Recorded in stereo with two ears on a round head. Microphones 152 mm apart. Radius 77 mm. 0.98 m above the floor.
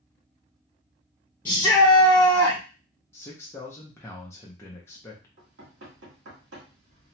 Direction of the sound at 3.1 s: 15° left (ahead or behind).